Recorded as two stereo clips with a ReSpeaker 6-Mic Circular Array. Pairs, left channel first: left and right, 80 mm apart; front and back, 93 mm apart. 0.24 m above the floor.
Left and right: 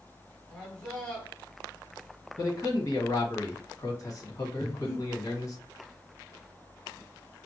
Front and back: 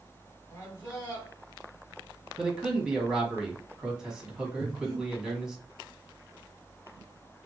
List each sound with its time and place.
0.5 s a man speaking: 20° left, 1.3 m
2.4 s a man speaking: 100° left, 1.4 m
4.6 s breathing: 35° left, 2 m